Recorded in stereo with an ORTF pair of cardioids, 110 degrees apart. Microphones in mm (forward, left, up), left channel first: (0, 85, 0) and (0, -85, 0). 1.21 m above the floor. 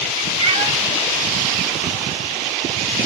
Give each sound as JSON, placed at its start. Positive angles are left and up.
{"t": 0.4, "sound": "a cat meowing", "azimuth_deg": -35, "distance_m": 1.2}